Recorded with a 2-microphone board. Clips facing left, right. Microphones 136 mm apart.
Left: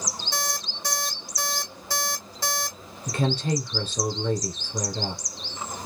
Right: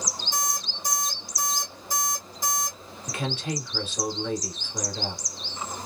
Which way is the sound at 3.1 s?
35° left (ahead or behind).